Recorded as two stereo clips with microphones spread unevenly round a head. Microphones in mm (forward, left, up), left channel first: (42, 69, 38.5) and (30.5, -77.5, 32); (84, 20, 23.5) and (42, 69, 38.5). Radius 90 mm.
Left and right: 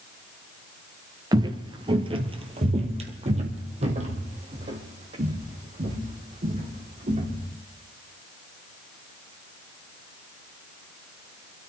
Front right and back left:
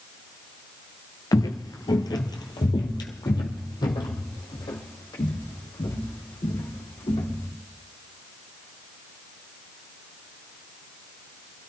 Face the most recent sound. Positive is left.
turn(degrees=-55)